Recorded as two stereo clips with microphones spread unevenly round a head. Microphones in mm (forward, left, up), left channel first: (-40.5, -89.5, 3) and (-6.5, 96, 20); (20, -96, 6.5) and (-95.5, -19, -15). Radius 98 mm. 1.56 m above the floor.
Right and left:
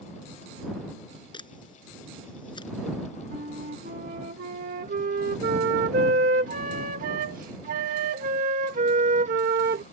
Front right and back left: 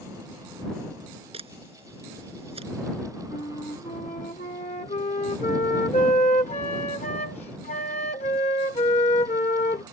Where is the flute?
30° left.